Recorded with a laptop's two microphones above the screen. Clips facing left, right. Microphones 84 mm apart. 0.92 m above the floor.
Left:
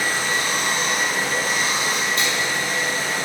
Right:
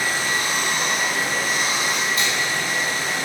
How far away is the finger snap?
About 1.9 m.